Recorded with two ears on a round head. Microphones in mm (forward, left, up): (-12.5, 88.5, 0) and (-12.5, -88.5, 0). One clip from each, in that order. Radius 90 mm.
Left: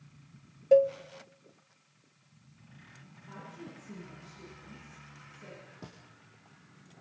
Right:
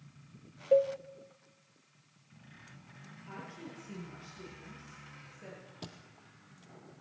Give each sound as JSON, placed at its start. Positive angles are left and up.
{"t": 0.7, "sound": "a cowbell", "side_deg": 35, "distance_m": 0.5}
{"t": 3.3, "sound": "a woman speaking", "side_deg": -55, "distance_m": 10.0}
{"t": 5.8, "sound": "a thud", "side_deg": -75, "distance_m": 3.0}